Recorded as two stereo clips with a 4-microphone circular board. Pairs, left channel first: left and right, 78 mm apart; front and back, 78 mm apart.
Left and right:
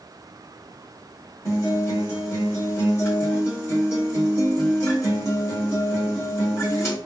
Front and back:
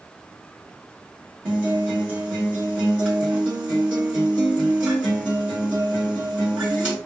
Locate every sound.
1.4 s a guitar: 120° left, 1.8 m